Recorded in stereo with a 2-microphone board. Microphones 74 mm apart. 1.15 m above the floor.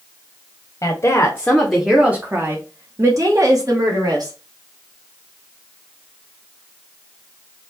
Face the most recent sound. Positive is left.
turn(degrees=-60)  # may be behind; listen again after turning